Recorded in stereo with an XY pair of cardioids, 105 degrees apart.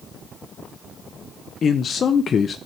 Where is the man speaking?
45° left, 0.6 m.